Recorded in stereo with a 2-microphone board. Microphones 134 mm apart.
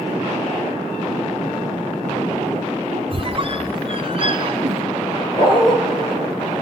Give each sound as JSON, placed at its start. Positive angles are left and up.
{"t": 3.1, "sound": "a squeak", "side_deg": -40, "distance_m": 0.7}
{"t": 5.4, "sound": "a dog barking", "side_deg": 35, "distance_m": 2.5}